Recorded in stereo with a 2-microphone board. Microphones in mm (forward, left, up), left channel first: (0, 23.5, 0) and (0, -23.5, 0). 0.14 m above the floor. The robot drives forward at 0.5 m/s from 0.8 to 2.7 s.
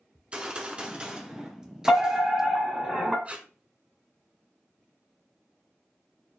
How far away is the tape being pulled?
About 0.6 m.